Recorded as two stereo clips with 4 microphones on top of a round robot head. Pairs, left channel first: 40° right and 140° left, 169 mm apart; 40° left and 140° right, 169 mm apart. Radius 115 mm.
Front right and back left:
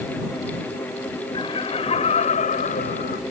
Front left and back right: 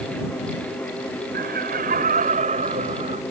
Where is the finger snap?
No finger snap in this recording.